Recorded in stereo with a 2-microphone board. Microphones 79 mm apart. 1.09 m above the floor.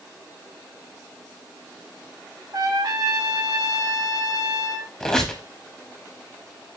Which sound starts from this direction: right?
A trumpet, at 2.5 s.